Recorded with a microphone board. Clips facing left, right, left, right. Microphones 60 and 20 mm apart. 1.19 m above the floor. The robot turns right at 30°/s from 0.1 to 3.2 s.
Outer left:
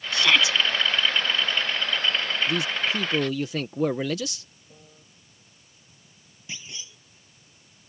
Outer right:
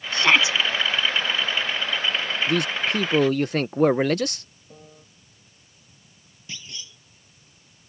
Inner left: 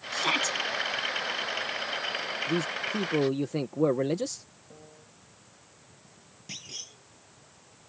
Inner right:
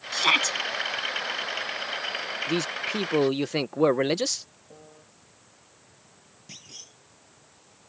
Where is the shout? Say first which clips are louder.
Outer right 2 dB, inner right 5 dB; 35° right (ahead or behind); by 0.6 s 25° right (ahead or behind).